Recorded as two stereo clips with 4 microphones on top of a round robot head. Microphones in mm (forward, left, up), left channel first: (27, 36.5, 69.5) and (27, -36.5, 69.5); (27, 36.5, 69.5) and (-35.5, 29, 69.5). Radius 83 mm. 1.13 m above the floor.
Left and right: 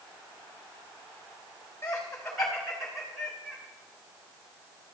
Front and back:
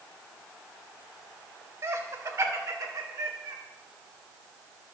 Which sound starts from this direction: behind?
Laughter, at 1.8 s.